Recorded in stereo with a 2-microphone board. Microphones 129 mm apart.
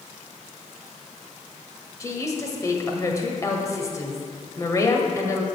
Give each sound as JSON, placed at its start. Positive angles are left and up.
{"t": 2.0, "sound": "a woman speaking", "side_deg": 25, "distance_m": 1.5}